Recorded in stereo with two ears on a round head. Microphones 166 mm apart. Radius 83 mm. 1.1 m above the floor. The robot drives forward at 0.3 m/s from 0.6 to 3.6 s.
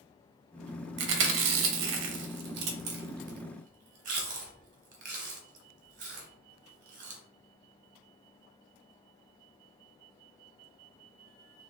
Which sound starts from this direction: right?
Chewing, at 1.0 s.